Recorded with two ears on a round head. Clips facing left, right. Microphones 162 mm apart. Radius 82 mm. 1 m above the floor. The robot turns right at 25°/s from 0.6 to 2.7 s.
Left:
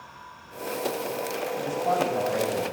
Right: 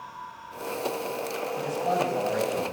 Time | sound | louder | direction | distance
1.6 | a man speaking | left 1 dB | centre (ahead or behind) | 8 m